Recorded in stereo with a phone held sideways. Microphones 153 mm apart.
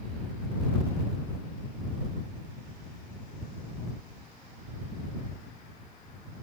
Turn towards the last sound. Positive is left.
No sound to turn to.